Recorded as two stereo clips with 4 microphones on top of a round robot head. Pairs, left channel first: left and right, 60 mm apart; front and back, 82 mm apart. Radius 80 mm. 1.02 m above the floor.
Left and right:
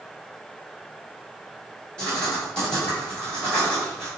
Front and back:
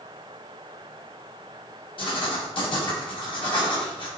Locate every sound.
2.0 s writing: 15° left, 2 m